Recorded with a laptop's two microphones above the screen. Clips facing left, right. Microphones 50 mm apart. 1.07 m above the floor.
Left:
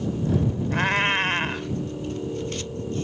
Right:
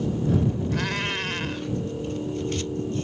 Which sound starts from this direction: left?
A cat meowing, at 0.7 s.